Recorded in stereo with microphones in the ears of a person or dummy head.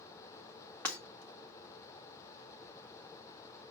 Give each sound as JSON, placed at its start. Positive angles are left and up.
{"t": 0.8, "sound": "breaking glass", "side_deg": 10, "distance_m": 2.0}